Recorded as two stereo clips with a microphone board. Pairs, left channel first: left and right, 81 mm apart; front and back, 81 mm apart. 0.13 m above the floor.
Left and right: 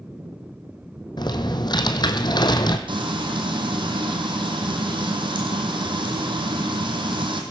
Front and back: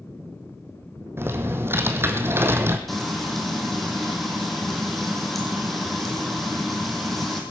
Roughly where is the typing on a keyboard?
Behind left.